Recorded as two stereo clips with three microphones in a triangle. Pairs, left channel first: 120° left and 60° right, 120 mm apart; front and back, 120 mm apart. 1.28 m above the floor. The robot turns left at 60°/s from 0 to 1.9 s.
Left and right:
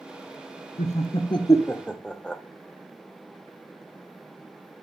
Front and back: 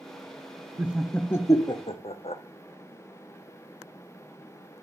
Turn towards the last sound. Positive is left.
turn(degrees=40)